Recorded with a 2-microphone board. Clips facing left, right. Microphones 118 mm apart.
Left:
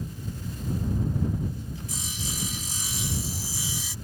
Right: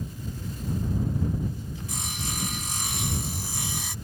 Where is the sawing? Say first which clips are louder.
Right 1 dB; 70° right (ahead or behind).